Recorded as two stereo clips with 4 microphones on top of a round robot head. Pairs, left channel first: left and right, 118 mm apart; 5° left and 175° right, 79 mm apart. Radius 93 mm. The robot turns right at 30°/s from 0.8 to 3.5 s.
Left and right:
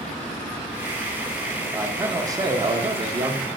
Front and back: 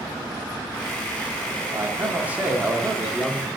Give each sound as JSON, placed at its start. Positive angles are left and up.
{"t": 1.7, "sound": "a man speaking", "azimuth_deg": -140, "distance_m": 0.9}